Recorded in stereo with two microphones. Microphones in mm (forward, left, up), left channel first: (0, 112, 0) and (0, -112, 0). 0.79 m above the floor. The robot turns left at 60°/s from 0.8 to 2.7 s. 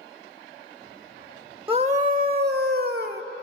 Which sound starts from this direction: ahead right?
A scream, at 1.7 s.